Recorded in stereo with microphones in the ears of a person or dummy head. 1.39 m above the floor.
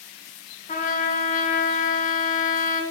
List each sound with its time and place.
0.7 s a trumpet: 35° left (ahead or behind), 1.0 m